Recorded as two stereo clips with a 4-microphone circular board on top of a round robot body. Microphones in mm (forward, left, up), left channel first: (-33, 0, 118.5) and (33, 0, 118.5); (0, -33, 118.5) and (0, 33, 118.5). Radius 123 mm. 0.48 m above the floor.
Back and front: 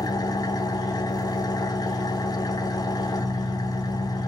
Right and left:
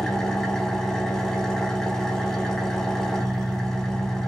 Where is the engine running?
175° right, 1.1 m.